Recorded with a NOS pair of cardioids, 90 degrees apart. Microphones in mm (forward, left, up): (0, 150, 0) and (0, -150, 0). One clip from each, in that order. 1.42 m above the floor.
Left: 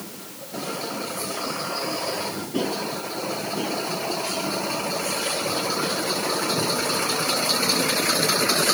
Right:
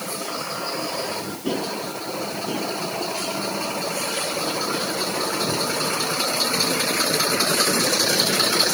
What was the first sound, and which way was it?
Only background noise.